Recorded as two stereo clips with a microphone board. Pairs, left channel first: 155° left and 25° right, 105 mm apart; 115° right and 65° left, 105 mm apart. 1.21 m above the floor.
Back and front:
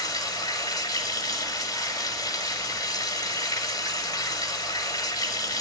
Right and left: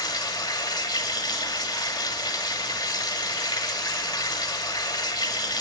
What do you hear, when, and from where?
0.0 s running water: 155° right, 2 m